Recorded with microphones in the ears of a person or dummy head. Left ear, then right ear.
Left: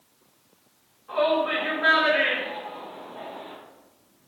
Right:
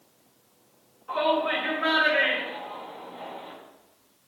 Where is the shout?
30° right (ahead or behind), 2 m.